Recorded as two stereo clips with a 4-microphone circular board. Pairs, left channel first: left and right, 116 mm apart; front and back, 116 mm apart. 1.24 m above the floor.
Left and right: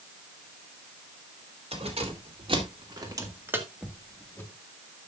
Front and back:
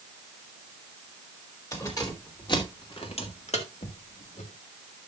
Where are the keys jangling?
60° right, 3 m; by 4.5 s 25° left, 1.7 m.